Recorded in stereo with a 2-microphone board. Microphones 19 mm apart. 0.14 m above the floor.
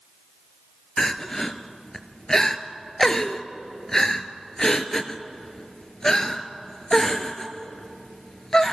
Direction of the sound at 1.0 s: 25° left (ahead or behind).